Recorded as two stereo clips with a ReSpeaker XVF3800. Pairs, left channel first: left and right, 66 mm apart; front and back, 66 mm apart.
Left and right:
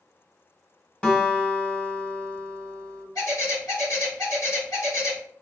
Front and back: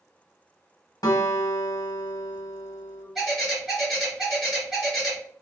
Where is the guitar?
15° left, 1.0 m.